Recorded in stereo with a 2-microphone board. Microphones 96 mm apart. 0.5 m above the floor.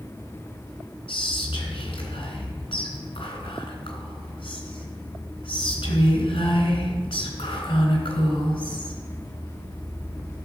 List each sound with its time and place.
1.1 s whispering: 65° left (ahead or behind), 3.5 m